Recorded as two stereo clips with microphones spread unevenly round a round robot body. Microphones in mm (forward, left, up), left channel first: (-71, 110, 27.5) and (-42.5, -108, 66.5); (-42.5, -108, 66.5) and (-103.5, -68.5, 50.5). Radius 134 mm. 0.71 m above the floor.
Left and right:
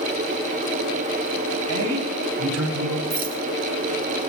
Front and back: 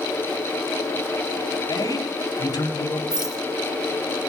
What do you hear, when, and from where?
1.7 s a man speaking: 65° right, 5.5 m; by 3.0 s 55° right, 4.5 m
3.1 s a rattle: 135° right, 1.9 m